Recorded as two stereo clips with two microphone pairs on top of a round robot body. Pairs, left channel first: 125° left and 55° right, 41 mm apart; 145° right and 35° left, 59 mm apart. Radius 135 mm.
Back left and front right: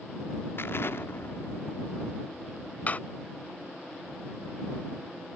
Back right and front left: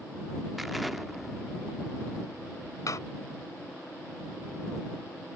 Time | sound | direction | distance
0.6 | an explosion | 120° left | ?
2.9 | a door slam | straight behind | ?